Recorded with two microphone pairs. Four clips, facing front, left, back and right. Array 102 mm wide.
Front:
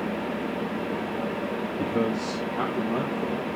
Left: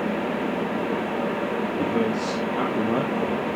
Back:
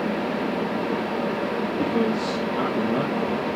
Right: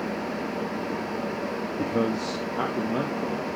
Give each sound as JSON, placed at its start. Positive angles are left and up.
{"t": 1.8, "sound": "a man speaking", "azimuth_deg": 135, "distance_m": 3.5}